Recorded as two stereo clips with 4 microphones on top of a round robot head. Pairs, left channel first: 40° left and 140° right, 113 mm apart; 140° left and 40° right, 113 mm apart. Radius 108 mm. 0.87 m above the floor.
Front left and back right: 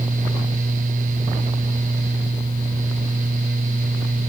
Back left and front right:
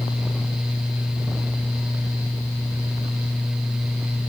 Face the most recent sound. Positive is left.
No sound to turn to.